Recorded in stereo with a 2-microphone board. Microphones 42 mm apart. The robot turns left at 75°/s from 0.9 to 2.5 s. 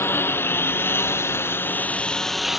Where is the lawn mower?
70° left (ahead or behind); by 2.6 s 5° right (ahead or behind).